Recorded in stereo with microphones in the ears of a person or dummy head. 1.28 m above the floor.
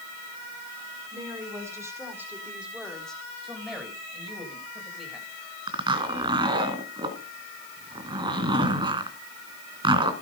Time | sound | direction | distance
1.1 | a woman speaking | 20° right (ahead or behind) | 5 m
3.4 | a man speaking | 5° right (ahead or behind) | 5 m
5.7 | a zipper | 25° right (ahead or behind) | 3 m